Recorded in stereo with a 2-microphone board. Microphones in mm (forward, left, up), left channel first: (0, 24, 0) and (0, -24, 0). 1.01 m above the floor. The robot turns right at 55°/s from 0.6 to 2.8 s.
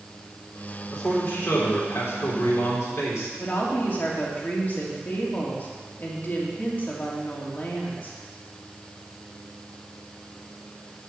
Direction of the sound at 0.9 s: 15° left.